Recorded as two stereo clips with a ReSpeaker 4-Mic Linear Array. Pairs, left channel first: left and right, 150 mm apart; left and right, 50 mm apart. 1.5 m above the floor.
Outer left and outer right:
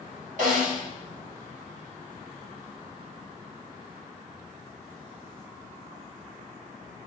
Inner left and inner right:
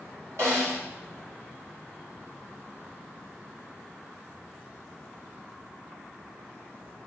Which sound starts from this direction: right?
A snare drum, at 0.4 s.